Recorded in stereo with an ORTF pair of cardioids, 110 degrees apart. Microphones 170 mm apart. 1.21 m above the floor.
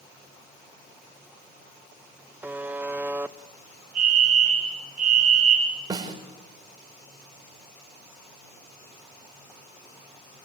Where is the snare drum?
20° right, 5 m.